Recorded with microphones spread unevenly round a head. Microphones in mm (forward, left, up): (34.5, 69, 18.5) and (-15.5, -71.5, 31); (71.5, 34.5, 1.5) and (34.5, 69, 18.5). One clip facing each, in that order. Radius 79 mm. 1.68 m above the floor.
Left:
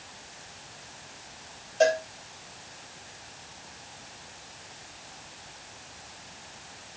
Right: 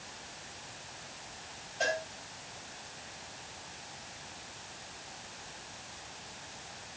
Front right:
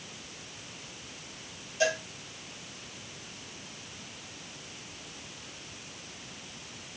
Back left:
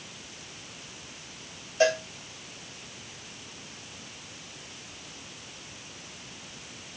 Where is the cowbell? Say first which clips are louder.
Left 11 dB, back left 5 dB; 100° left, 8 m.